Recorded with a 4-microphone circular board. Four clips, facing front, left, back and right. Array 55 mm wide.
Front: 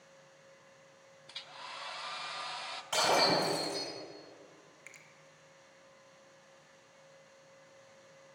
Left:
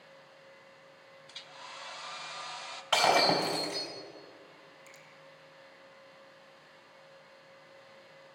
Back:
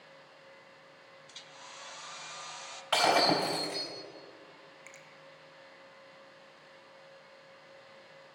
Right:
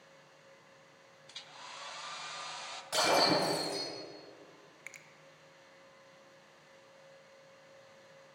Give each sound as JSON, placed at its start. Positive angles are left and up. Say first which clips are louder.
{"t": 1.3, "sound": "a hair dryer", "louder": "left 1 dB, front 5 dB", "azimuth_deg": 15, "distance_m": 0.5}
{"t": 2.9, "sound": "breaking glass", "louder": "left 3 dB, back 2 dB", "azimuth_deg": 140, "distance_m": 3.5}
{"t": 4.9, "sound": "a finger snap", "louder": "right 8 dB, even", "azimuth_deg": -85, "distance_m": 0.7}